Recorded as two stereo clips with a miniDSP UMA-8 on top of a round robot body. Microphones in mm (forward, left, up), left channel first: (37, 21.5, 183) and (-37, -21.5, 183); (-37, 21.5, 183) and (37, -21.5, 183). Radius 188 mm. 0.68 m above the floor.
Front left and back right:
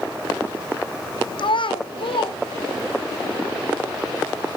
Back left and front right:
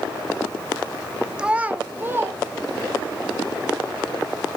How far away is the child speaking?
About 1.3 m.